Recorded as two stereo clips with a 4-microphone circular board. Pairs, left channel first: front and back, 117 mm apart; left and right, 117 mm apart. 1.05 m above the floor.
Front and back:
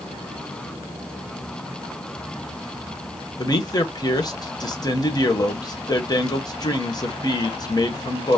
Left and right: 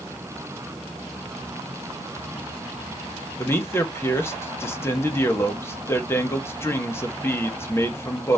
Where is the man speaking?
30° left, 1.0 m.